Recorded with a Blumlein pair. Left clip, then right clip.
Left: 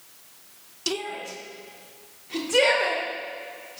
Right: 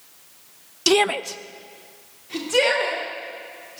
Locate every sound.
0.9 s a shout: 70° right, 0.5 m; by 3.8 s 5° left, 4 m